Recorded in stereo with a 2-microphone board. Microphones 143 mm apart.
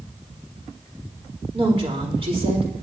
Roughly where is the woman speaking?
Right.